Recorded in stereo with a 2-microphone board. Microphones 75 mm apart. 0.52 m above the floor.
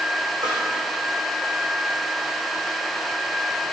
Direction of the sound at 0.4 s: 80° right.